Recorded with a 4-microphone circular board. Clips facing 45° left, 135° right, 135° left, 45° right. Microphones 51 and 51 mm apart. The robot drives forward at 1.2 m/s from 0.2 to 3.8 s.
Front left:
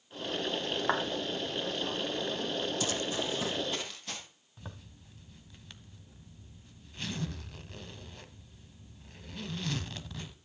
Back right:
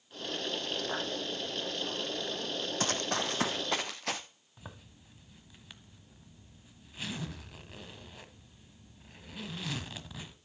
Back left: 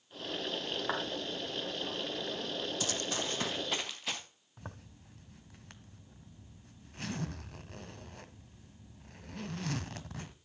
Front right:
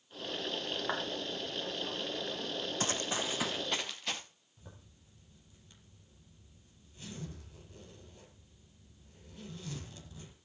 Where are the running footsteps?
95° right, 1.1 m; by 4.2 s 140° right, 2.5 m.